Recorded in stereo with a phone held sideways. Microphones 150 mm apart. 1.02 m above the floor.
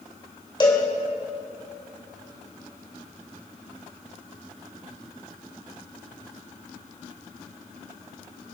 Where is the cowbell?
30° left (ahead or behind), 3 m.